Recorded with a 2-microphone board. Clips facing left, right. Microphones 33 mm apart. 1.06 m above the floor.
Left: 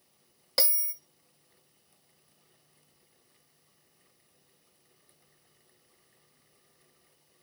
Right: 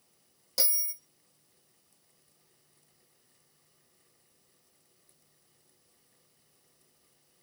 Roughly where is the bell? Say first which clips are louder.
Left 3 dB; left.